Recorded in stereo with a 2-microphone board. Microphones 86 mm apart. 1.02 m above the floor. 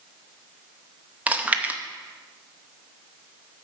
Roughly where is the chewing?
Centre.